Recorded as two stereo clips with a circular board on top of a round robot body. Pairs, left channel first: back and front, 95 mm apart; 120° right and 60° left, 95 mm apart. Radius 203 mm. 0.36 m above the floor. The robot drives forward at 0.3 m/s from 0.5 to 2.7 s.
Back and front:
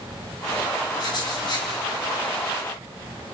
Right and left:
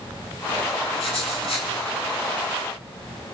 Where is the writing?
135° right, 4.5 m; by 1.7 s 140° right, 4.5 m.